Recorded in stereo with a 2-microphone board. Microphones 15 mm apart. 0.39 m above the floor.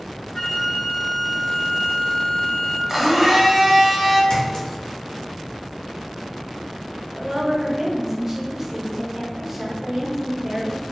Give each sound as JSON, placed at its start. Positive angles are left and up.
{"t": 0.3, "sound": "a flute", "side_deg": 35, "distance_m": 1.6}
{"t": 2.9, "sound": "a blender", "side_deg": -15, "distance_m": 0.9}
{"t": 4.3, "sound": "a clink", "side_deg": 50, "distance_m": 1.2}
{"t": 7.1, "sound": "a woman speaking", "side_deg": -20, "distance_m": 1.1}